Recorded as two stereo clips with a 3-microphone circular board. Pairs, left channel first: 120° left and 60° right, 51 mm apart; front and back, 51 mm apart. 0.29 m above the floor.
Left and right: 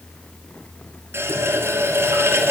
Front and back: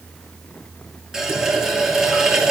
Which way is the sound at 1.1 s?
100° right.